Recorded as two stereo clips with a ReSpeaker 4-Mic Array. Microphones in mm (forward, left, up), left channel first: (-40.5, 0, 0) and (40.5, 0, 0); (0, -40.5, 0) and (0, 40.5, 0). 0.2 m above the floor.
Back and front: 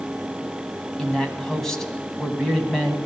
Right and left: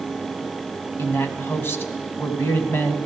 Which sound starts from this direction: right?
A man speaking, at 1.0 s.